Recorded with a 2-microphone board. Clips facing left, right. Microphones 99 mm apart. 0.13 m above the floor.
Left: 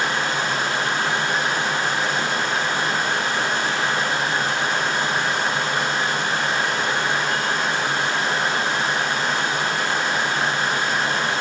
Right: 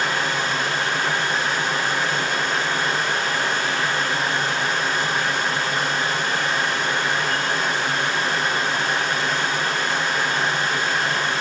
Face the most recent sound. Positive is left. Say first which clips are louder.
# even
turn(degrees=35)  # may be behind; listen again after turning